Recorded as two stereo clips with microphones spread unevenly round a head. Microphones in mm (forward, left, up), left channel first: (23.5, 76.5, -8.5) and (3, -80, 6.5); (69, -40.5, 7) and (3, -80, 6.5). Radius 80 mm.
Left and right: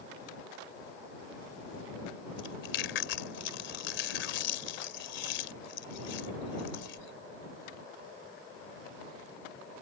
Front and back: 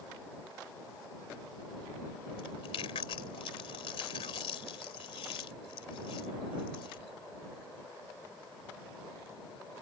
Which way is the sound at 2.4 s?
65° left.